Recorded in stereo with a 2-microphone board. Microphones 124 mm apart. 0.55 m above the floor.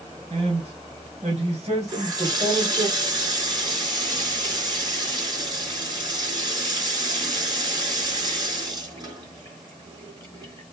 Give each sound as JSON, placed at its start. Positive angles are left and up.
{"t": 0.3, "sound": "a man speaking", "side_deg": -50, "distance_m": 4.5}
{"t": 1.9, "sound": "a running tap", "side_deg": -35, "distance_m": 5.0}